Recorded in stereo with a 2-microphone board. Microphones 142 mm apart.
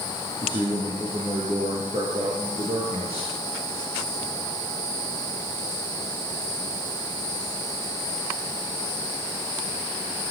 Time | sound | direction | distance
0.4 | a man speaking | 35° right (ahead or behind) | 6 m